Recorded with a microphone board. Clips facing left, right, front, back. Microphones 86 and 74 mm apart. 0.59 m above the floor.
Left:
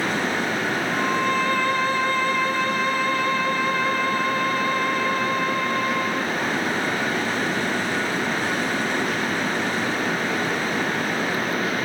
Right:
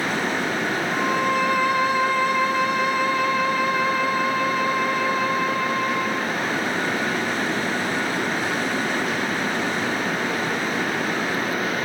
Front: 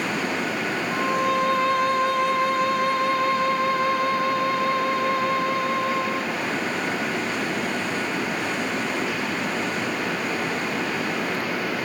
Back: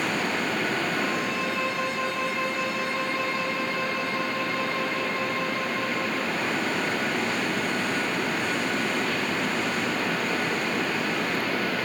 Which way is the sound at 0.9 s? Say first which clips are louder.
Right 1 dB, front 5 dB; 10° right.